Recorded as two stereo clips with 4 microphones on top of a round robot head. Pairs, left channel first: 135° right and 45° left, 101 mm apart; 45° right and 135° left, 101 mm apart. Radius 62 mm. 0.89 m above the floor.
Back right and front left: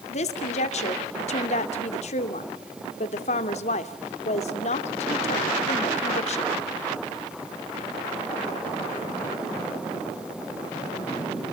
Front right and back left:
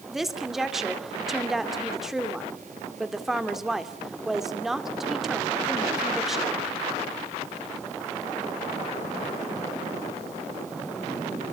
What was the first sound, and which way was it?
A woman speaking, 140° right.